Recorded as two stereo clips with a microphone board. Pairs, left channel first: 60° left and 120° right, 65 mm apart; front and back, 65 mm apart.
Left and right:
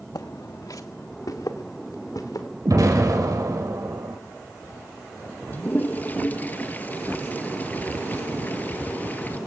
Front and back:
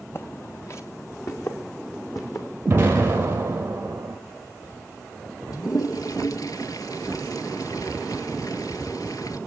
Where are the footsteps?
50° left, 0.7 m; by 2.5 s 35° left, 3.5 m.